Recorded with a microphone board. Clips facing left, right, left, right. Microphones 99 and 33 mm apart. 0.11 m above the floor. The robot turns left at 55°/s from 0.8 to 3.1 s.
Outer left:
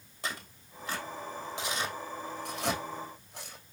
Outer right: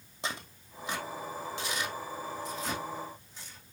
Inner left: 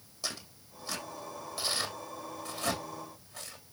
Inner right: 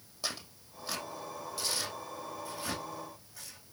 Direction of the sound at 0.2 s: 20° right (ahead or behind).